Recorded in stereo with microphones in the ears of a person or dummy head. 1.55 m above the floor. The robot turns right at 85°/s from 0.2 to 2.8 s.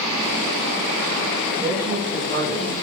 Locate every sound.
1.6 s a man speaking: 35° right, 7.5 m; by 2.7 s 60° left, 7.5 m